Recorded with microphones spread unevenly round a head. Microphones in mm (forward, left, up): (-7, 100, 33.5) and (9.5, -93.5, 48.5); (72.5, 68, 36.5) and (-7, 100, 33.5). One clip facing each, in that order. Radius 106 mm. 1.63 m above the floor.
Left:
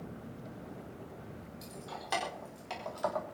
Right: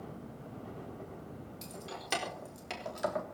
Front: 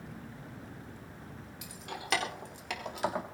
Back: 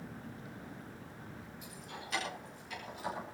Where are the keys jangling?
25° right, 4.5 m; by 3.2 s 15° right, 3 m.